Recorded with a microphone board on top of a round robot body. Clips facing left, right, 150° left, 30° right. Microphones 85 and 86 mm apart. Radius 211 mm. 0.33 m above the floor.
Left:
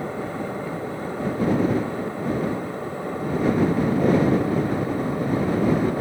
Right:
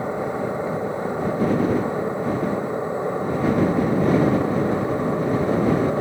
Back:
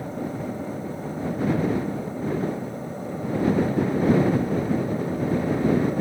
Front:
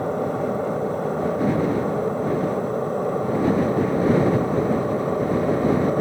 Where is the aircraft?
20° right; by 6.0 s 25° right.